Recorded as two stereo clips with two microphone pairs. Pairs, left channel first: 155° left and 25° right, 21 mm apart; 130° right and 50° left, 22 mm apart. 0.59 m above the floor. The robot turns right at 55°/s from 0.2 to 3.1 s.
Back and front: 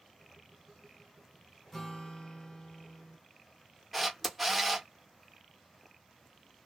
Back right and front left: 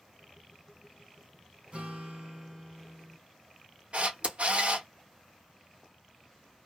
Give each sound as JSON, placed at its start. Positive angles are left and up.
{"t": 1.7, "sound": "a guitar", "azimuth_deg": 75, "distance_m": 1.2}
{"t": 3.9, "sound": "a camera shutter", "azimuth_deg": 60, "distance_m": 0.7}